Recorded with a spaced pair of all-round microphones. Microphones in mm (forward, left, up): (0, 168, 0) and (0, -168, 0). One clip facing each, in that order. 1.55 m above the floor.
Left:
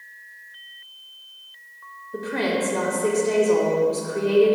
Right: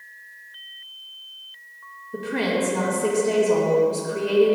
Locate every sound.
2.1 s a woman speaking: 40° right (ahead or behind), 1.7 m